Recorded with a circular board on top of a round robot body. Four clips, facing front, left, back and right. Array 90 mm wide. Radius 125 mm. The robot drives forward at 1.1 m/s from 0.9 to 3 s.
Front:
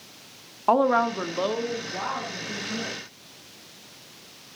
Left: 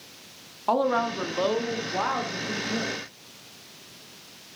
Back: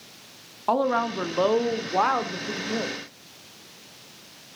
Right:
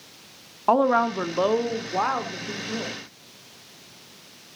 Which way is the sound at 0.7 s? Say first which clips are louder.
Right 4 dB, front 3 dB; 60° right.